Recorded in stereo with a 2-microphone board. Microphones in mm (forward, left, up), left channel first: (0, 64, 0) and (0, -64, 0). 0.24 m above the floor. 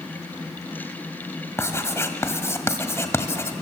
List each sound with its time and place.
1.6 s writing: 20° left (ahead or behind), 1.7 m